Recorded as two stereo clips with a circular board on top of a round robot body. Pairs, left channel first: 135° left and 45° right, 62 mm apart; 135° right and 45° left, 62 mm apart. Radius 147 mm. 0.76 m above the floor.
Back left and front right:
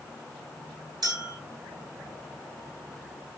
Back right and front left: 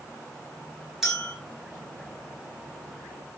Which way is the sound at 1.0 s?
40° right.